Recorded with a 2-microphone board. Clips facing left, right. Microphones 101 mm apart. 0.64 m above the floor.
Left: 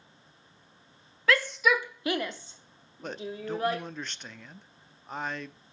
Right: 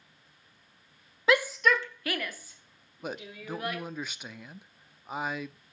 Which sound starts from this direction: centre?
A man speaking, at 3.0 s.